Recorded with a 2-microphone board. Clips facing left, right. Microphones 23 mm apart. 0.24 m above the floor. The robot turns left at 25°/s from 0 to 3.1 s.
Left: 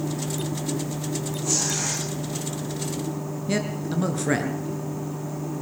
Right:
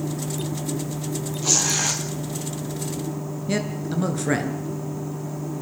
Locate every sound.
1.4 s tearing paper: 60° right (ahead or behind), 4 m; by 2.0 s 70° right (ahead or behind), 4 m
3.5 s a man speaking: centre (ahead or behind), 4 m